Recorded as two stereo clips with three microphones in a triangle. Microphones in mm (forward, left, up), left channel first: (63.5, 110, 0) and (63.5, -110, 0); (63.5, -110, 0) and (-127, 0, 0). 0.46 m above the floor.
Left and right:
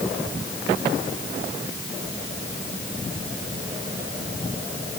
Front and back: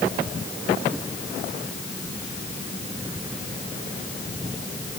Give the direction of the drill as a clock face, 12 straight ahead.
I don't hear a drill.